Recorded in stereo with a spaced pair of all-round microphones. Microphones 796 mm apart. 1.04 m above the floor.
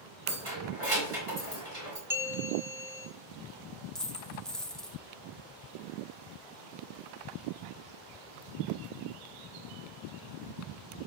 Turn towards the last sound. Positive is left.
turn(degrees=0)  # may be behind; listen again after turning